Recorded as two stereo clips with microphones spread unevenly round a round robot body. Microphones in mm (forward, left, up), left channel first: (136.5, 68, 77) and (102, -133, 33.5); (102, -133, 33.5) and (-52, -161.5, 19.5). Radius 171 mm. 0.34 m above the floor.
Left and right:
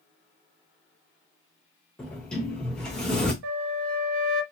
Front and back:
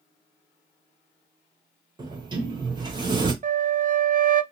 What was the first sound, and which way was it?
A sliding door, 175° right.